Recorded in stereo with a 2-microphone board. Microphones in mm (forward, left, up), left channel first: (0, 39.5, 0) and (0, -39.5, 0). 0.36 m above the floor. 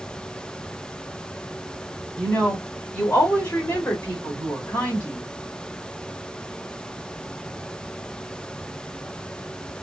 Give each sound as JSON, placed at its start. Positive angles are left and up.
{"t": 2.2, "sound": "a woman speaking", "side_deg": 15, "distance_m": 1.3}